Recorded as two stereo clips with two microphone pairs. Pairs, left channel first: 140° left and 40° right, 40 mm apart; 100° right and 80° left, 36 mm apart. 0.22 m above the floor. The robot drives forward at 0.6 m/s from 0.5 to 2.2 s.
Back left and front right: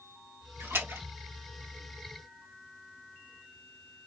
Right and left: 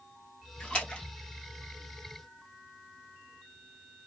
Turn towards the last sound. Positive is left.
turn(degrees=-55)